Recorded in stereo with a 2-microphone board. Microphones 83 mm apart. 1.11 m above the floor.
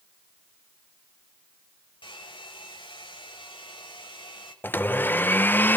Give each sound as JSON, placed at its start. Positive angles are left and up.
{"t": 2.0, "sound": "a hair dryer", "side_deg": 85, "distance_m": 6.0}
{"t": 4.6, "sound": "a blender", "side_deg": 25, "distance_m": 0.5}